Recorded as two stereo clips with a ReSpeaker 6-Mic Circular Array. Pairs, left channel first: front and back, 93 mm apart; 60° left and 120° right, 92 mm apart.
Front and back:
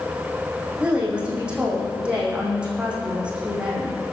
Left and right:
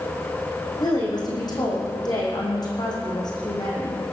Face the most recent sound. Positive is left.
turn(degrees=100)